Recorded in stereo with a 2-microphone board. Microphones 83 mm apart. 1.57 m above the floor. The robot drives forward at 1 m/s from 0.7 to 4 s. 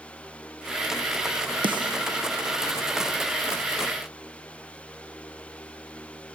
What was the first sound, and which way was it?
A snare drum, 70° right (ahead or behind).